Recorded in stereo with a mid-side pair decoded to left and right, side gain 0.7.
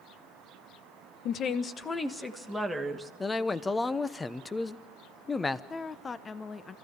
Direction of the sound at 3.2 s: 20° left.